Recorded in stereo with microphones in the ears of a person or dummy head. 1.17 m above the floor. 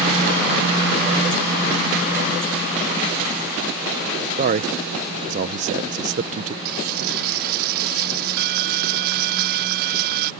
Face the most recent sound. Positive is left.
turn(degrees=-55)  # may be behind; listen again after turning